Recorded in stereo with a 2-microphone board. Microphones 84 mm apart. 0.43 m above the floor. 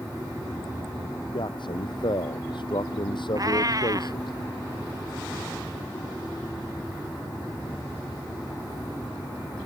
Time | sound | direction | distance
1.3 | a man speaking | 65° left (ahead or behind) | ?
3.4 | a cat meowing | 45° right (ahead or behind) | ?